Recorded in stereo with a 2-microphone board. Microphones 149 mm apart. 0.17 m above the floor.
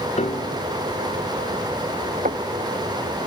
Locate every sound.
0.2 s a piano: 55° left (ahead or behind)
2.2 s knocking: 65° right (ahead or behind)